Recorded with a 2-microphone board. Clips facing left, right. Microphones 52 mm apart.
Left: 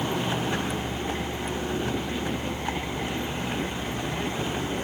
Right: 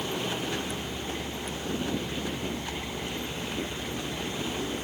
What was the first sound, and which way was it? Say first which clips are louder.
A vehicle: left 4 dB; 35° left (ahead or behind).